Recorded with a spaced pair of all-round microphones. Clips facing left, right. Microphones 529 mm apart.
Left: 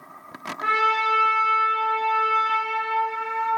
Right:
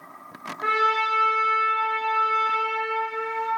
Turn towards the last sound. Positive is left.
turn(degrees=55)  # may be behind; listen again after turning